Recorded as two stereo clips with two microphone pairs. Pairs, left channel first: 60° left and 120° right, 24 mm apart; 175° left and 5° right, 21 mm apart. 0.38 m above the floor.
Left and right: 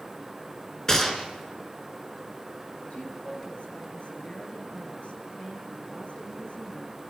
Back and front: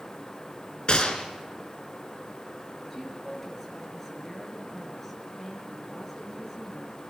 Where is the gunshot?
130° left, 3 m.